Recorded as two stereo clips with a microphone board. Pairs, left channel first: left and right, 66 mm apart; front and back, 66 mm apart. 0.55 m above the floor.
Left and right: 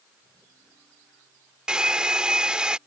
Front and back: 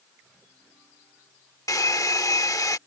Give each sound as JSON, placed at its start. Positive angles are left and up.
{"t": 1.7, "sound": "a hair dryer", "azimuth_deg": -15}